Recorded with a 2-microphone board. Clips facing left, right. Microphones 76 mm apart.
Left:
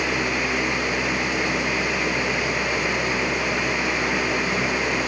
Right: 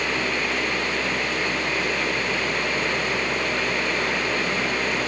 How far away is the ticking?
I don't hear ticking.